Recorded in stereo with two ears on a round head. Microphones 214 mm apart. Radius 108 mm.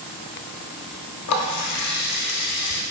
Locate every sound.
1.3 s a running tap: 70° left (ahead or behind), 0.7 m